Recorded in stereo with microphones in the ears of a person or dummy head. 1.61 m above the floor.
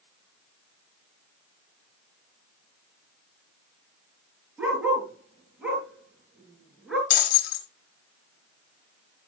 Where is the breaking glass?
70° left (ahead or behind), 3 m.